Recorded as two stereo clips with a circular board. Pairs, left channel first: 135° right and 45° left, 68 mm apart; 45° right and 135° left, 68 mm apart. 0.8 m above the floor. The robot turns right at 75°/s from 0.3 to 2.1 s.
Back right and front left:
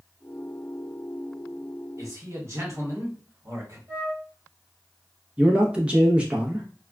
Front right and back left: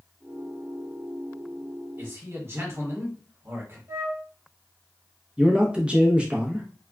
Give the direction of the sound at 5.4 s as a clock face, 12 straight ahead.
9 o'clock.